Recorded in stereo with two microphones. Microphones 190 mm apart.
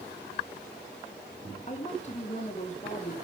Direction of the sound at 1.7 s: 40° left (ahead or behind).